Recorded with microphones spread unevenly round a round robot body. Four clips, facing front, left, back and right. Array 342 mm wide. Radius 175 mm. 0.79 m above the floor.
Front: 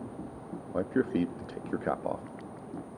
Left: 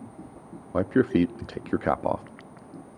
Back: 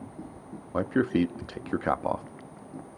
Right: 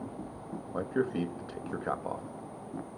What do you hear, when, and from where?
0.7 s a man speaking: 120° left, 0.9 m